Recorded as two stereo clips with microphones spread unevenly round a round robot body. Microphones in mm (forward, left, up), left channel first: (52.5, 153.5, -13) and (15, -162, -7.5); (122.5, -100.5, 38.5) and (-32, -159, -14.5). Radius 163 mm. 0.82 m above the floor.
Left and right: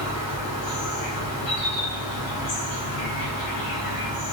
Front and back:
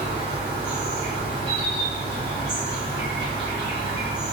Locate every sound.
0.0 s an insect: 115° left, 1.8 m